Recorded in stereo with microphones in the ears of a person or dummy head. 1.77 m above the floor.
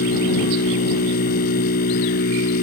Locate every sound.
0.0 s a machine running: 60° left (ahead or behind)